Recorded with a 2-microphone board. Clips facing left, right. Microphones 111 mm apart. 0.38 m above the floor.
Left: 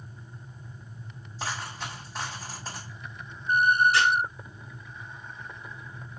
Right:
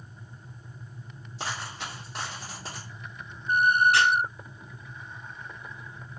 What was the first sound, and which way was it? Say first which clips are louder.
A dropped coin: left 1 dB; 75° right (ahead or behind).